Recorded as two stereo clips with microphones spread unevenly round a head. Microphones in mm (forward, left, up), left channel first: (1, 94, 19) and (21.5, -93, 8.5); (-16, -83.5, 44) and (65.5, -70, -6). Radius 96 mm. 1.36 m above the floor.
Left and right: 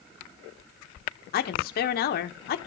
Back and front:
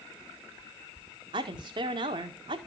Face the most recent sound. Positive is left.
turn(degrees=55)